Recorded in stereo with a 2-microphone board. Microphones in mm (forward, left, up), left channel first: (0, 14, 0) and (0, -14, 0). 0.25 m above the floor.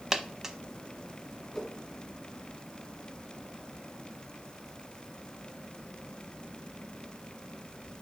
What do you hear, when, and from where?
0.1 s a dropped coin: 20° right (ahead or behind), 0.7 m
1.5 s a whoosh: 5° left (ahead or behind), 1.8 m